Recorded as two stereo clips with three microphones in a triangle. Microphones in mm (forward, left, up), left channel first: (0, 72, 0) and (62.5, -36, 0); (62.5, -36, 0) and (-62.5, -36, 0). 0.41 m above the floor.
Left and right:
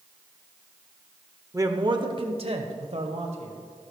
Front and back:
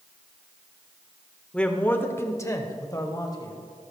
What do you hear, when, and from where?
1.5 s a man speaking: 70° right, 0.8 m; by 3.6 s 55° right, 1.7 m